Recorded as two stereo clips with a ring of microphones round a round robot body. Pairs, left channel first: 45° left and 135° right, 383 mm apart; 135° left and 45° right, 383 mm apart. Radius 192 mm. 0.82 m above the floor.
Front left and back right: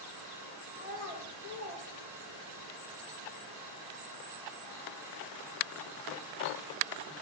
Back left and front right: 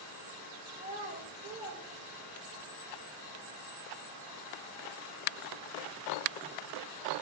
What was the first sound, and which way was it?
A child speaking, 20° left.